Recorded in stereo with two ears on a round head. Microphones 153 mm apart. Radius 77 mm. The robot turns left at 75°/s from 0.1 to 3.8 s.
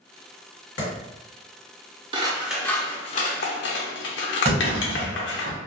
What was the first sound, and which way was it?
A clap, 70° left (ahead or behind).